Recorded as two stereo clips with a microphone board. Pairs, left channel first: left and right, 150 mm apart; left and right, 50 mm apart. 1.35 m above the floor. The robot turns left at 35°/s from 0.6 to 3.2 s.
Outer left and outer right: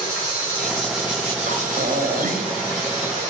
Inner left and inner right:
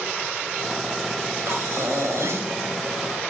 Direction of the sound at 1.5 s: 65° right.